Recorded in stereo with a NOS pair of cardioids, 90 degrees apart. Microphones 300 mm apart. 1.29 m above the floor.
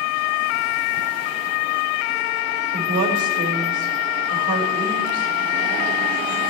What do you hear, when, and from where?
2.7 s a woman speaking: 65° right, 5.5 m